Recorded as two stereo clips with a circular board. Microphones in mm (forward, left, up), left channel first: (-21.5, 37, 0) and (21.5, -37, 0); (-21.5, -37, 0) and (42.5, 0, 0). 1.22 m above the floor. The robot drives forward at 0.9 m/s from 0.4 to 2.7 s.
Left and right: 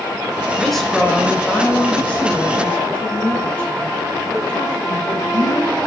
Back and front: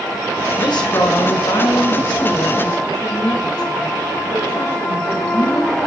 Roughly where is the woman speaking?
Behind right.